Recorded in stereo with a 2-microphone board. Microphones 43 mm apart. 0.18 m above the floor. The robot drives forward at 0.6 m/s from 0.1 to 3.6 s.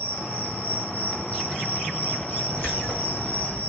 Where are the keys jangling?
65° left (ahead or behind), 8 m; by 3.7 s 70° left (ahead or behind), 7.5 m.